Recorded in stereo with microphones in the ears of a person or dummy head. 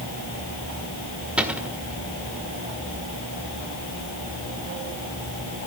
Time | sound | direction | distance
1.4 | a cupboard door | 10° right (ahead or behind) | 1.7 m